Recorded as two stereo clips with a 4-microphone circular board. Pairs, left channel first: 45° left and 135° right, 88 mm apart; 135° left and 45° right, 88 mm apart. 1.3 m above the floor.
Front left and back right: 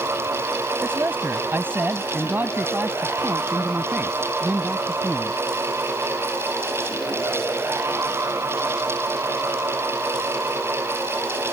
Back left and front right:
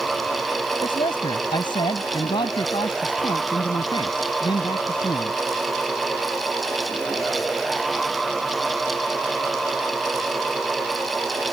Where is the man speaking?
160° left; by 5.4 s 155° left.